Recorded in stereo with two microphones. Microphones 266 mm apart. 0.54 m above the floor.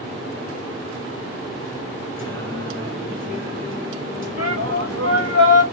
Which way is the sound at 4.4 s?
60° right (ahead or behind).